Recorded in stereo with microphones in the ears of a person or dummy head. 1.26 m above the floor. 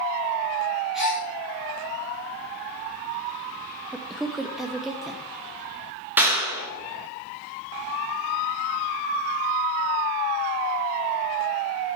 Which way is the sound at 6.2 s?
15° right (ahead or behind).